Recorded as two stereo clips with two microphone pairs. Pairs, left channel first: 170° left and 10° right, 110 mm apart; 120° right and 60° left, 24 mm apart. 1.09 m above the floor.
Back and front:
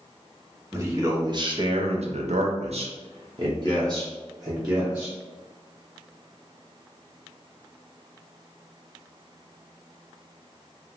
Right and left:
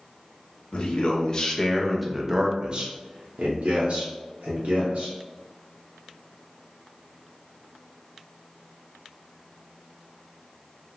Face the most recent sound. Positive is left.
turn(degrees=55)